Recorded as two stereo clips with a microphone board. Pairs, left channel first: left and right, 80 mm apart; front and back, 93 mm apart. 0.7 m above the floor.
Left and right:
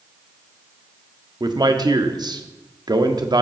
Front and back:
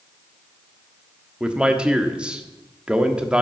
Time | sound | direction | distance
1.4 | a man speaking | 100° right | 1.1 m